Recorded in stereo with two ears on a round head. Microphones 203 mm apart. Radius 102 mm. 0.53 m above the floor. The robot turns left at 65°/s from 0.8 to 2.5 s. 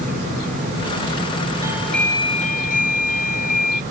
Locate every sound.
1.6 s a doorbell: 165° right; by 3.8 s 140° left